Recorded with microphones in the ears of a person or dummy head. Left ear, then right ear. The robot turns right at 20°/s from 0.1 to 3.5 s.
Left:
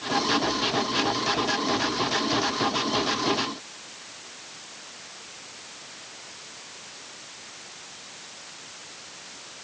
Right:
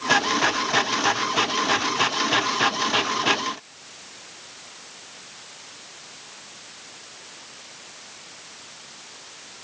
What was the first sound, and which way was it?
Only background noise.